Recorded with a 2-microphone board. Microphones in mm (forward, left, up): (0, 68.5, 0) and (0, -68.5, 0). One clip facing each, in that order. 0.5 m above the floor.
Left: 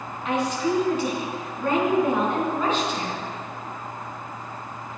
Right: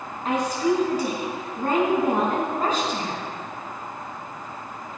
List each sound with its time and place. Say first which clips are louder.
0.2 s a woman speaking: right 2 dB; 35° right (ahead or behind), 4.5 m